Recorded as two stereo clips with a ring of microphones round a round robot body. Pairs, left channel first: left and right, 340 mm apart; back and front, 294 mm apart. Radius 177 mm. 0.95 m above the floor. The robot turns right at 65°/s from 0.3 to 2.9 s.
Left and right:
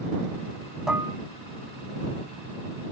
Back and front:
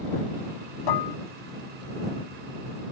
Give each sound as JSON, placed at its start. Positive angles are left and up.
{"t": 0.9, "sound": "dishes clattering", "azimuth_deg": 180}